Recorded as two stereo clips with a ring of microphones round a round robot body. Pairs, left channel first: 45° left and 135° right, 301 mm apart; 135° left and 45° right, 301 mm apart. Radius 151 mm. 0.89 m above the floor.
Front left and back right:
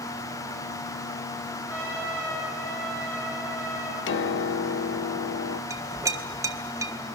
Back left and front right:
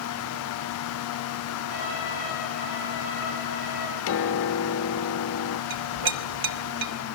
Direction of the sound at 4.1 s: 95° left.